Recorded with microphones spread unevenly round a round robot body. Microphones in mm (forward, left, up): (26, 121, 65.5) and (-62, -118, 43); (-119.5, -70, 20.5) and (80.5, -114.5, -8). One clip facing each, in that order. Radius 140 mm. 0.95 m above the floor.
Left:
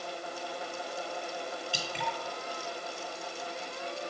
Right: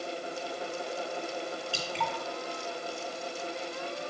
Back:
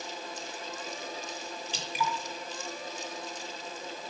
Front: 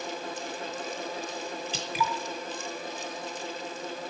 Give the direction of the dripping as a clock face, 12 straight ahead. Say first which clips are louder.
Right 2 dB, front 1 dB; 12 o'clock.